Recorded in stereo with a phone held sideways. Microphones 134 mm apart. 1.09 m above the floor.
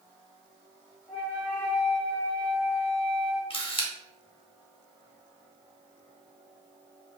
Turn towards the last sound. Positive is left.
turn(degrees=40)  # may be behind; listen again after turning